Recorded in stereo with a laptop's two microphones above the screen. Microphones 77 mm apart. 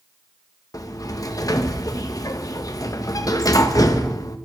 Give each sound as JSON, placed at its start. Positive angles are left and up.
{"t": 0.7, "sound": "a sliding door", "side_deg": 50, "distance_m": 1.0}